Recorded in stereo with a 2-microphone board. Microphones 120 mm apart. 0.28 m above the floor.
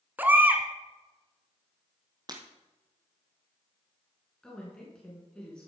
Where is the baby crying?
15° right (ahead or behind), 0.9 m.